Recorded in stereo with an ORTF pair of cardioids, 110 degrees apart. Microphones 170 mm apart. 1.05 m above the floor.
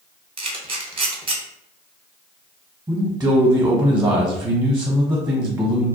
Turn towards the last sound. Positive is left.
turn(degrees=-20)